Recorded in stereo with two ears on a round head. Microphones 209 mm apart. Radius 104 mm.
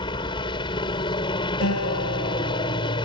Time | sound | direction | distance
0.0 | a helicopter | 20° left (ahead or behind) | ?
1.6 | a guitar | 65° left (ahead or behind) | ?